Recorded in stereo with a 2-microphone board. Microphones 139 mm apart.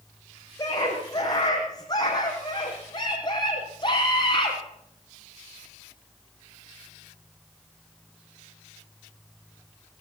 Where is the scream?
25° left (ahead or behind), 6.5 m; by 4.6 s 35° left (ahead or behind), 4 m.